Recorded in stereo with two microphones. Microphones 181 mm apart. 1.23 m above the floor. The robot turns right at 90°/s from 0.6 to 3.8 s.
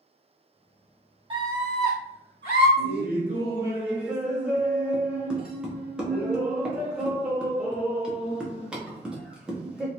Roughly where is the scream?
Ahead right.